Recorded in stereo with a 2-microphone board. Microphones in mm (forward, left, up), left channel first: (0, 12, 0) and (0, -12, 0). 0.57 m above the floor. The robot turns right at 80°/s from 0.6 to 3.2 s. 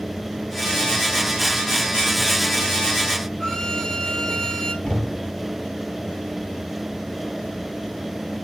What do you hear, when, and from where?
3.4 s a violin: 20° left (ahead or behind), 3.5 m
4.8 s knocking: 20° left (ahead or behind), 3 m